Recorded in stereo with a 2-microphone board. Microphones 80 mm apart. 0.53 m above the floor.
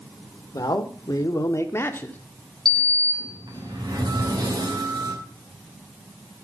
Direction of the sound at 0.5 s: 55° left (ahead or behind).